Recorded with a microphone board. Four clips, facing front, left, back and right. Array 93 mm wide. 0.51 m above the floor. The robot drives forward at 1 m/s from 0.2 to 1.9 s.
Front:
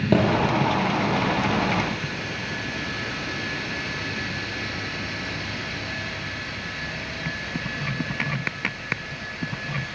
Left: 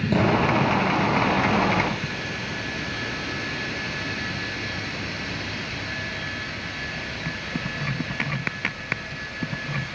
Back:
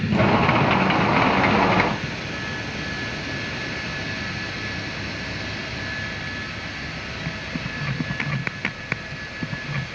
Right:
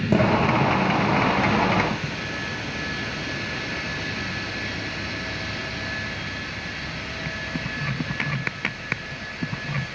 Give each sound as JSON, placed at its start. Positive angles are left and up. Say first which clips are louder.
{"t": 0.1, "sound": "a thud", "louder": "right 2 dB, front 1 dB", "azimuth_deg": -20, "distance_m": 6.5}